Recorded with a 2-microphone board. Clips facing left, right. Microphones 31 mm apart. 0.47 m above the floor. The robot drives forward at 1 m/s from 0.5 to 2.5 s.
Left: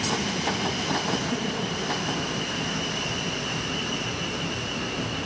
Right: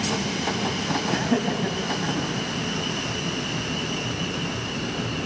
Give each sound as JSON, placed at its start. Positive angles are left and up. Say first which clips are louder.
{"t": 1.1, "sound": "laughter", "louder": "right 4 dB", "side_deg": -60, "distance_m": 4.0}